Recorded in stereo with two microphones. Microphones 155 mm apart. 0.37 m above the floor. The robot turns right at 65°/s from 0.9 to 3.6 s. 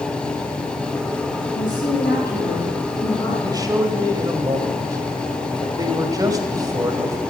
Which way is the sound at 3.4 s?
30° right (ahead or behind).